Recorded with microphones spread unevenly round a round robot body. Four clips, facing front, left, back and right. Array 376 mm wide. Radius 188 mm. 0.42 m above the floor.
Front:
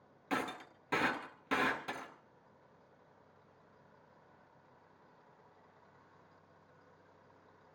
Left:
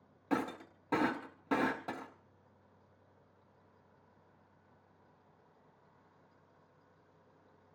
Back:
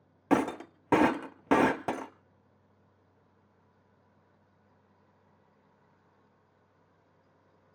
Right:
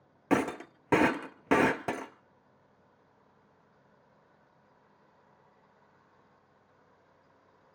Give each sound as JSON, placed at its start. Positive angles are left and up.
{"t": 0.3, "sound": "breaking glass", "azimuth_deg": -125, "distance_m": 0.9}